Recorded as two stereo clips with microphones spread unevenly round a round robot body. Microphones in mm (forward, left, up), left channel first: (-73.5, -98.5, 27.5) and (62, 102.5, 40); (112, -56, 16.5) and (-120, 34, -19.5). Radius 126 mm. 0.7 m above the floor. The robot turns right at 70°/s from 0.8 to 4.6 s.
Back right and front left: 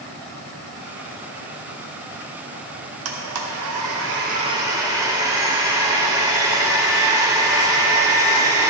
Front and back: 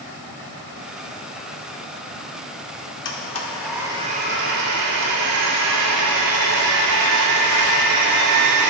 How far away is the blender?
About 1.0 m.